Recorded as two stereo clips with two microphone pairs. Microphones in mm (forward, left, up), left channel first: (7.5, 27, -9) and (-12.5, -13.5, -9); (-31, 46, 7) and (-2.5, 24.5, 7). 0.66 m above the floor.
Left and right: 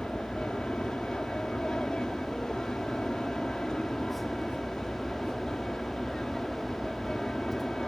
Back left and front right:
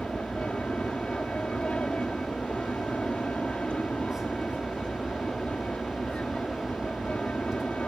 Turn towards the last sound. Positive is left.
turn(degrees=130)